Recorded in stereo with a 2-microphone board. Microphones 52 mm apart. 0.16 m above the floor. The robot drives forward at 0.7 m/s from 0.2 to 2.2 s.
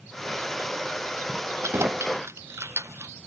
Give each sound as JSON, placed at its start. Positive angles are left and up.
{"t": 1.6, "sound": "keys jangling", "side_deg": -65}